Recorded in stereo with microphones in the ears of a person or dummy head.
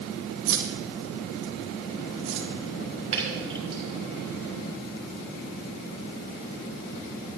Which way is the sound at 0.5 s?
75° right (ahead or behind).